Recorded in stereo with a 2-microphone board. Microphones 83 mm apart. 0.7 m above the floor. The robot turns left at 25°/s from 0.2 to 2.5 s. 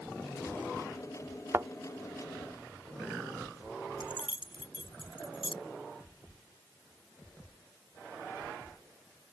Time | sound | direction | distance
1.5 | a thud | 30° right (ahead or behind) | ?
4.0 | keys jangling | 85° left | ?